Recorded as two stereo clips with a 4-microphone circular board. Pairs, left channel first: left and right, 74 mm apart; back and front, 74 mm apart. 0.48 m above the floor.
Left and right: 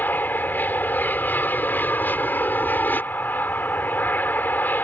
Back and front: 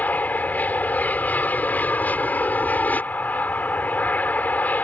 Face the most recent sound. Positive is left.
turn(degrees=130)